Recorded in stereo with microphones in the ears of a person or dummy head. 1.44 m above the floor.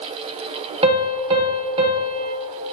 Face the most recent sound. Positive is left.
turn(degrees=-35)  # may be behind; listen again after turning